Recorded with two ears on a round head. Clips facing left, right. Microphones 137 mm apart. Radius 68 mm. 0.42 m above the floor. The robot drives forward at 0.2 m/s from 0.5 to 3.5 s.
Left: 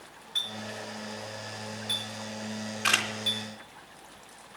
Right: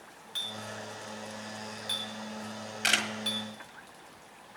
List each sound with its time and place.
0.3 s a clink: 50° right (ahead or behind), 4.5 m; by 3.4 s 55° right (ahead or behind), 4 m
2.8 s a camera shutter: 65° right (ahead or behind), 1.5 m